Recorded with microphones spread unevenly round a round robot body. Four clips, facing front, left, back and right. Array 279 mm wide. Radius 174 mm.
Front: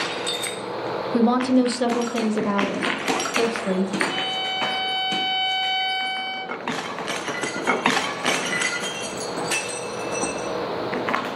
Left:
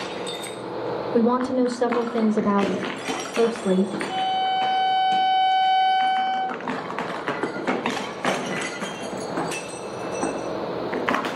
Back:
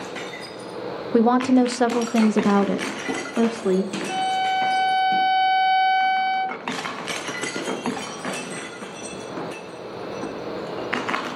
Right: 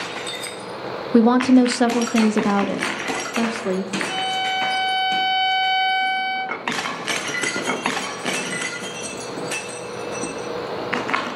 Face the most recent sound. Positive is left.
turn(degrees=-145)